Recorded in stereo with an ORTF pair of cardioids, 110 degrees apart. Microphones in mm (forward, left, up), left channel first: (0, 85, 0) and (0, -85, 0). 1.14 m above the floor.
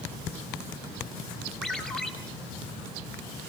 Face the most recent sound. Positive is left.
turn(degrees=5)